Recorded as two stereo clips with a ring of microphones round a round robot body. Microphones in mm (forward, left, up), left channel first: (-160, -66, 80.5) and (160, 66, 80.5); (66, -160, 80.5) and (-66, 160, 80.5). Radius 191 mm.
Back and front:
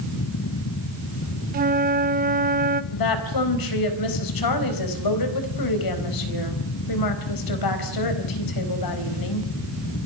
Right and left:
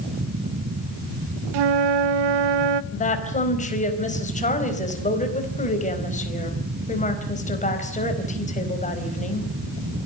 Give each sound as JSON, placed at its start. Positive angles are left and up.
{"t": 1.5, "sound": "a flute", "azimuth_deg": 90, "distance_m": 0.5}
{"t": 2.9, "sound": "a woman speaking", "azimuth_deg": -135, "distance_m": 4.5}